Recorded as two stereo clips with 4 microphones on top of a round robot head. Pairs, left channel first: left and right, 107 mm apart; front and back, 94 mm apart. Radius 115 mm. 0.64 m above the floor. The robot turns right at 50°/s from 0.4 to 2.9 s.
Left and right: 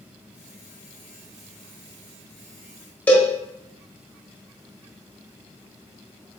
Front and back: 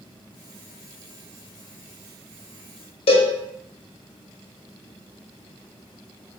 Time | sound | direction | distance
3.1 | a cowbell | 15° left | 0.8 m